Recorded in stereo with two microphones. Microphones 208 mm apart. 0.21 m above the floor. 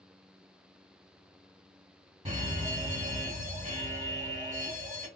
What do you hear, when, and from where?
2.2 s a fire alarm: 20° right (ahead or behind), 2.5 m